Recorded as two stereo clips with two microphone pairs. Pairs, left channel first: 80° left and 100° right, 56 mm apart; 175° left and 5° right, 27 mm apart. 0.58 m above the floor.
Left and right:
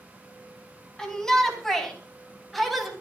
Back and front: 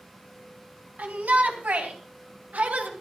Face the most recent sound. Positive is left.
turn(degrees=-10)